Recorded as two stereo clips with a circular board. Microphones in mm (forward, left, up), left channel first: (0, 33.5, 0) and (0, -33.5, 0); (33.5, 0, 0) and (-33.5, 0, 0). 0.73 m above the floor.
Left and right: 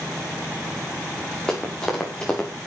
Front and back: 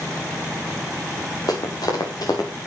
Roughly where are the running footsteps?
Ahead.